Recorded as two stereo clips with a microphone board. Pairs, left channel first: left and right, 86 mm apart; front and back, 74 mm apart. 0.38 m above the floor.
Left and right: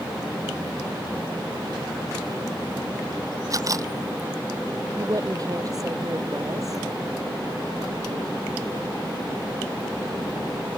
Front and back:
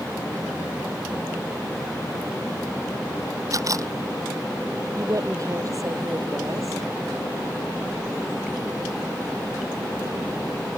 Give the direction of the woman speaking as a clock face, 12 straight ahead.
5 o'clock.